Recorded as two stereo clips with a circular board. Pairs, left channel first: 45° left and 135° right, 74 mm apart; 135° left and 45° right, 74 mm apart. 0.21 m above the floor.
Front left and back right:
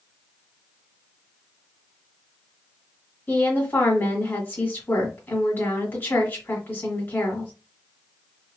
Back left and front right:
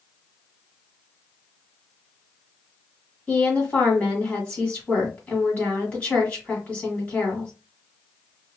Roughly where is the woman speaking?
Left.